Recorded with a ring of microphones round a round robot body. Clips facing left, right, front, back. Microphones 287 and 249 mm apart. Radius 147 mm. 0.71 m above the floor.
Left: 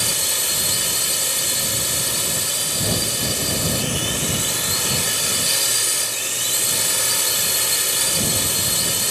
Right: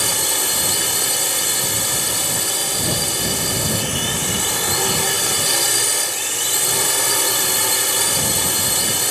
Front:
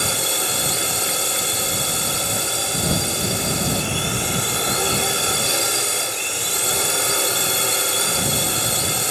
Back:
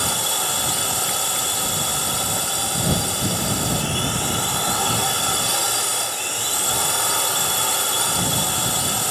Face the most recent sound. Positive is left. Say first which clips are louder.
# right 5 dB, front 3 dB
turn(degrees=-70)